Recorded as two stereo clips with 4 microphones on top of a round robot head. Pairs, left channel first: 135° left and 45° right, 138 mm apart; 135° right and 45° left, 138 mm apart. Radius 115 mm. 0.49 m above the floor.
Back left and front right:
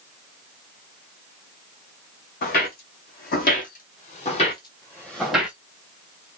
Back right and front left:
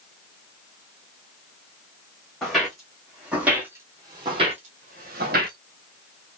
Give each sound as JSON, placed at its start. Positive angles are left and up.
{"t": 2.4, "sound": "footsteps", "azimuth_deg": 135, "distance_m": 1.4}